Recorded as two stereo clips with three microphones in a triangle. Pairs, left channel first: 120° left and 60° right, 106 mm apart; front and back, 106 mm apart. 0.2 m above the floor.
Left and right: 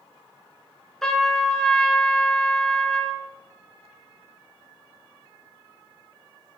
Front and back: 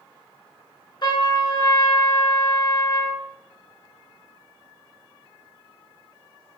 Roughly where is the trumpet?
Ahead left.